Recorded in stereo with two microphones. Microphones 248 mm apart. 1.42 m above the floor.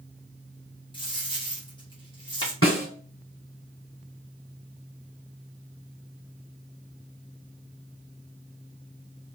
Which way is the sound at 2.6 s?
55° left (ahead or behind).